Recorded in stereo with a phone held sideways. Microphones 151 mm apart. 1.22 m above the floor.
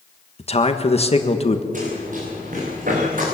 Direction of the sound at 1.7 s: 60° right (ahead or behind).